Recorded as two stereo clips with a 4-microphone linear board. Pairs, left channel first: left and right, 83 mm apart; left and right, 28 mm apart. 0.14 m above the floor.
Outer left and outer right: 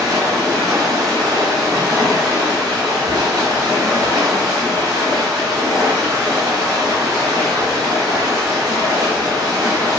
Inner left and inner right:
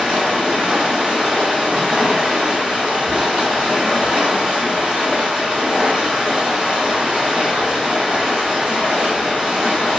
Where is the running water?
50° right (ahead or behind), 1.6 m.